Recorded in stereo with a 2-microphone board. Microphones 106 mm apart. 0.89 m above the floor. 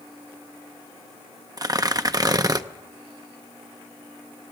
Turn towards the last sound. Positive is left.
turn(degrees=-35)  # may be behind; listen again after turning